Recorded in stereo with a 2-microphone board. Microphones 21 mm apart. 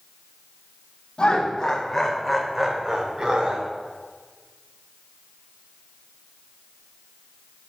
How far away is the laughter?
About 2.5 m.